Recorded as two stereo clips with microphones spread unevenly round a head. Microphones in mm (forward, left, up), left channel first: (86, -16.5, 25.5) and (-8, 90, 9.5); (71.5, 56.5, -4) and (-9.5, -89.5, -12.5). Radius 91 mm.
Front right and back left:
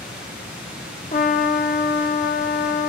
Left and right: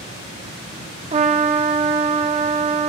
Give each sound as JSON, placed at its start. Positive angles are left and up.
{"t": 0.0, "sound": "running water", "azimuth_deg": 50, "distance_m": 9.0}
{"t": 1.1, "sound": "a trumpet", "azimuth_deg": -75, "distance_m": 1.0}